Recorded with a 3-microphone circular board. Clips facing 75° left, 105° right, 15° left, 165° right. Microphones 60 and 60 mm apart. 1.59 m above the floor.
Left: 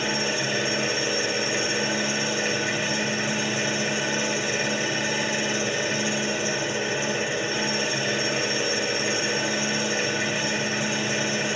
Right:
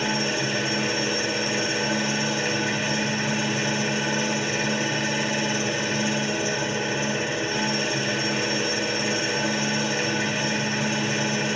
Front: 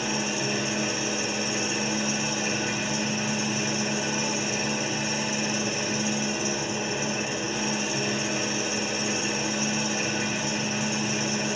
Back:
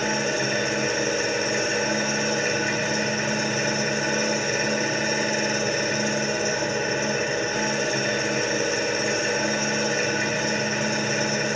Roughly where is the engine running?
Behind left.